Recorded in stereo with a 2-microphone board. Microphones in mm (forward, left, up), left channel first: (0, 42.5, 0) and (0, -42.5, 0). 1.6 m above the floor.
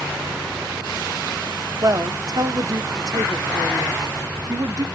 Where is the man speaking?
45° right (ahead or behind), 0.5 m.